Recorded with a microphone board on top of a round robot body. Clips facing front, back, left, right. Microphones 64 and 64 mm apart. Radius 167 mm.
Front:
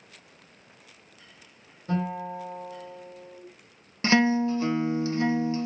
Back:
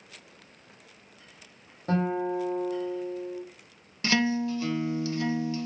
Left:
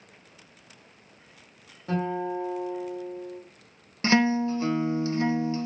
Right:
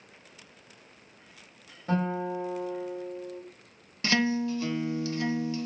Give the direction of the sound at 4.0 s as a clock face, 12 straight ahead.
11 o'clock.